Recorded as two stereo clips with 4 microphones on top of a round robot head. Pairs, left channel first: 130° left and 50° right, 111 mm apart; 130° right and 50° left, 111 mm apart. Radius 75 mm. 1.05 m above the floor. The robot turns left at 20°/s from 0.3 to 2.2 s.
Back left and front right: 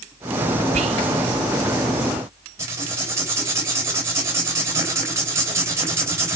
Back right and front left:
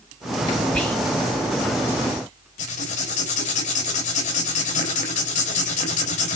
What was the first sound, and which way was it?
Whispering, 50° right.